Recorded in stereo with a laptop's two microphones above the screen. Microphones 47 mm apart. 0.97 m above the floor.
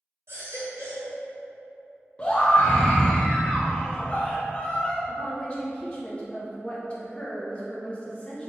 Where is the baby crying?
75° right (ahead or behind), 1.7 m.